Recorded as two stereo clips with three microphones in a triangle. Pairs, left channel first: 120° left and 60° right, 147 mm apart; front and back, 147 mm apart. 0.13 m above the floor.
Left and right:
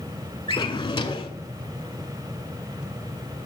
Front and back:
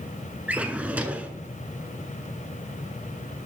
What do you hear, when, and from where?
0.5 s a drawer: 110° left, 0.7 m